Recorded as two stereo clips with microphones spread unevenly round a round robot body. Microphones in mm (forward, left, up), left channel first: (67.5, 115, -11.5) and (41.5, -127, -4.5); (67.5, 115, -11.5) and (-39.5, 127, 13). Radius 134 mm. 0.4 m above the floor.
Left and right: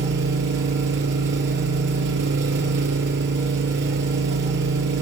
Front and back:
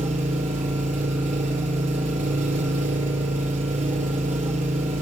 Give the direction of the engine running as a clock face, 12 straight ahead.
5 o'clock.